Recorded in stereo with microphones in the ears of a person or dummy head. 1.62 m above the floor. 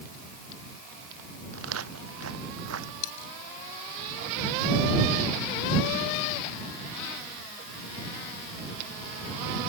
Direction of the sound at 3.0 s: 75° left (ahead or behind).